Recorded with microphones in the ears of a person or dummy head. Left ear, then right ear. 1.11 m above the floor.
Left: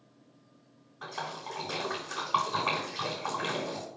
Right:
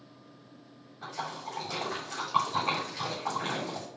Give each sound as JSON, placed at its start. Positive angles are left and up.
{"t": 1.0, "sound": "a splash", "side_deg": 45, "distance_m": 3.5}